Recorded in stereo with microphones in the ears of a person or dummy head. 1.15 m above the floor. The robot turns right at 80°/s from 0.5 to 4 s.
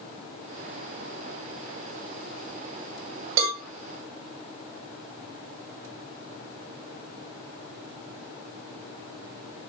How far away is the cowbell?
About 2 m.